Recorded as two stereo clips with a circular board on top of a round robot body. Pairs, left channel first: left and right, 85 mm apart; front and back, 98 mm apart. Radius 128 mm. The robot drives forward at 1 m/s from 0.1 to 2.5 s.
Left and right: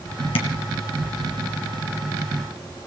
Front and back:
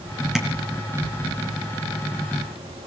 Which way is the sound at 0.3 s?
95° left.